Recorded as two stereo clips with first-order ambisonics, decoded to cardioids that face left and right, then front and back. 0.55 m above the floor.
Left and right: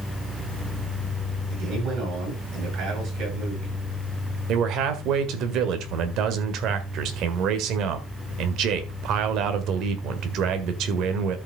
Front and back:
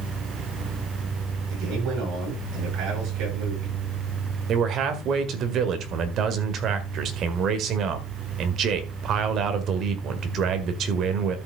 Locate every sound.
1.5 s a man speaking: 135° right, 9.5 m
4.5 s a man speaking: 130° right, 1.7 m